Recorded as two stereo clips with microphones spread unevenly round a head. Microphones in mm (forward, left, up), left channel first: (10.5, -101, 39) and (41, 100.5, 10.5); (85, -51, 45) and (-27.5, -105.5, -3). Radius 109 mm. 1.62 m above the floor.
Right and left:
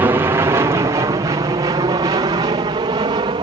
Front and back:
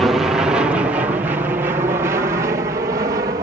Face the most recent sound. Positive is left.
turn(degrees=150)